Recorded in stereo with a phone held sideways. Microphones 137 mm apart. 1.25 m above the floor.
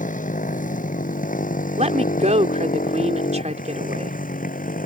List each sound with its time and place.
0.0 s a motorcycle: 75° left (ahead or behind); by 4.9 s 85° left
1.8 s a woman speaking: 55° right (ahead or behind)